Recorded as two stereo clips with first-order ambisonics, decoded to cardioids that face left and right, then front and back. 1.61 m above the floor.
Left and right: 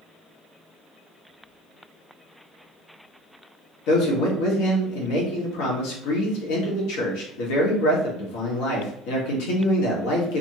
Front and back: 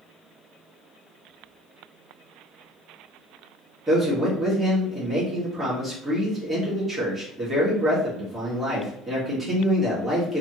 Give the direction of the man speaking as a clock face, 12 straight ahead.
9 o'clock.